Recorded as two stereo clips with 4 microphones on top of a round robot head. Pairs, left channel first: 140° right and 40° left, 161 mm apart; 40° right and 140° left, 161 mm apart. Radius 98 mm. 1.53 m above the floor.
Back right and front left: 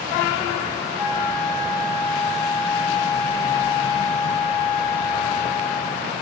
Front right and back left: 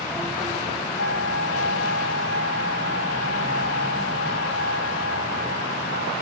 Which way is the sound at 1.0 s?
30° right.